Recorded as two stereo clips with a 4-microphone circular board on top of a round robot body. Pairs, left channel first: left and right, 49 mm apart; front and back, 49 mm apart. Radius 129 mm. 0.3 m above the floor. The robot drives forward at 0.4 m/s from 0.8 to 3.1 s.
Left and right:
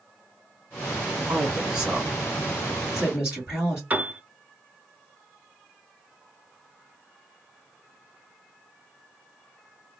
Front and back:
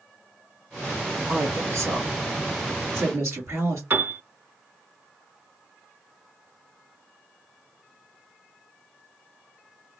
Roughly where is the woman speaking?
Behind.